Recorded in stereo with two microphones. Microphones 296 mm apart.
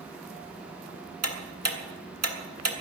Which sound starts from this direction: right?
Ticking, at 1.2 s.